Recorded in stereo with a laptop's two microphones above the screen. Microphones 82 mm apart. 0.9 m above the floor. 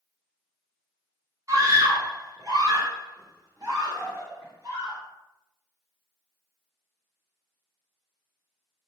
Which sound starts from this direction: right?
A scream, at 1.5 s.